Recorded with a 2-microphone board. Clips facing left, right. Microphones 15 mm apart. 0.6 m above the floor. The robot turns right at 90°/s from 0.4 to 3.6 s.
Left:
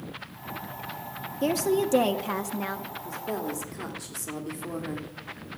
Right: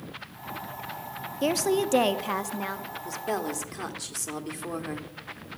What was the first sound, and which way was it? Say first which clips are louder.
A woman speaking: even; 20° right (ahead or behind).